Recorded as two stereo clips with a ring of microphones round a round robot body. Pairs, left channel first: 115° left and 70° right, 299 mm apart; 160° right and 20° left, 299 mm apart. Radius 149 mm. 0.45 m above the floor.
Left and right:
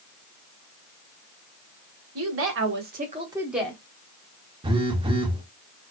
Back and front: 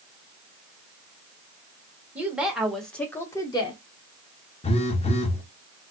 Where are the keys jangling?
No keys jangling in this recording.